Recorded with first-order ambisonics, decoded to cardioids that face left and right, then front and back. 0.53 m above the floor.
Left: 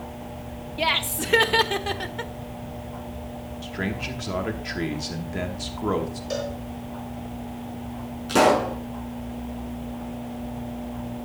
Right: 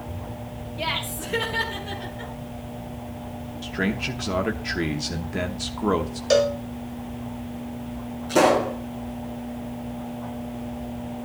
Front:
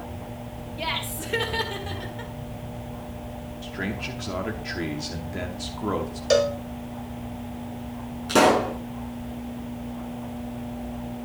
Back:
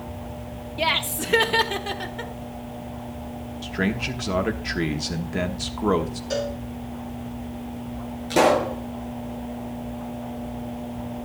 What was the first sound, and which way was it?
Laughter, 140° left.